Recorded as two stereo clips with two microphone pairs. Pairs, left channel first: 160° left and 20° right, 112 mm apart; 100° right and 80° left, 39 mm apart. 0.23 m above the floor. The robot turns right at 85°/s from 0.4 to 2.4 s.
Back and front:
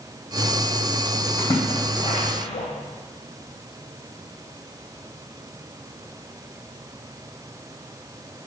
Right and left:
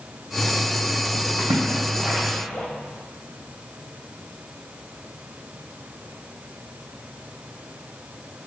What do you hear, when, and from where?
1.4 s a splash: 90° left, 2.5 m; by 2.6 s 175° left, 2.5 m